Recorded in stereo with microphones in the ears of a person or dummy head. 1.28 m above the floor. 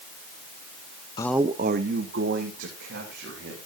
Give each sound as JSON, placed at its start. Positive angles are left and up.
{"t": 1.2, "sound": "a man speaking", "side_deg": 25, "distance_m": 0.5}